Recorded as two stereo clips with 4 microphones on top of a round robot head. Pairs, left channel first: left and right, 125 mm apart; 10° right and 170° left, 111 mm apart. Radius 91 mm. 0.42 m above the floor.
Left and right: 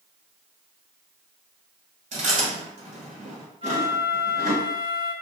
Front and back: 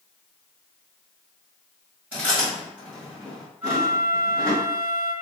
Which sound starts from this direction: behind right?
A flute, at 3.6 s.